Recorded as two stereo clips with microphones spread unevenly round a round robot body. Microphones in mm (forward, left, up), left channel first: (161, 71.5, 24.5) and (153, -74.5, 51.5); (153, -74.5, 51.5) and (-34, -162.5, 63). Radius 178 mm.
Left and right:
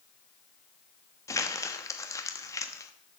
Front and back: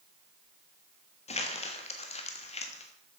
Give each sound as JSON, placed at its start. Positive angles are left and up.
{"t": 1.3, "sound": "crumpling", "azimuth_deg": 50, "distance_m": 1.3}